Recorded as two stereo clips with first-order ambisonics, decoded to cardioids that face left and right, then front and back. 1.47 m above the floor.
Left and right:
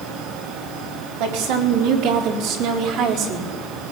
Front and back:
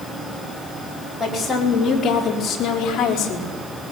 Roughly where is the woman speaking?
Right.